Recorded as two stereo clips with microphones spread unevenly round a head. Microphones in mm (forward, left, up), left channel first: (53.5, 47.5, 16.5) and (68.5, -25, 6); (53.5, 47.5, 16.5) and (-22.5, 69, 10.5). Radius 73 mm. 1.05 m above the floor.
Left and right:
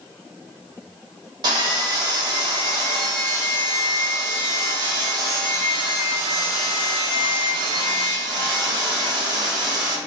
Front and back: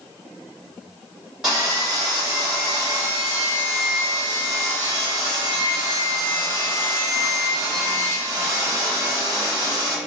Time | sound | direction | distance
1.4 | sawing | 115° right | 1.0 m